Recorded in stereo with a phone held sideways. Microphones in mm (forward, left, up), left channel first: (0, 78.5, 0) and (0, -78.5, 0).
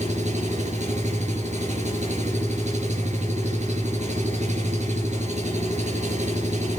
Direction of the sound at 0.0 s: 50° right (ahead or behind).